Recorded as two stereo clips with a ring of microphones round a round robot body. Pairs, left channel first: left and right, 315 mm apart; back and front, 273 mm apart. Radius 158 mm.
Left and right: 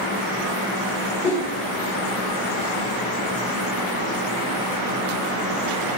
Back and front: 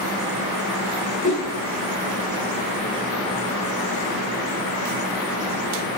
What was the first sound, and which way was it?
A whoosh, 160° left.